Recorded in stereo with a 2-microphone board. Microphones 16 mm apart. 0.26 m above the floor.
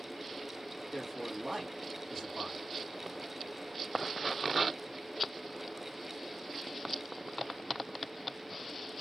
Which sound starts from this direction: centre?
A man speaking, at 0.9 s.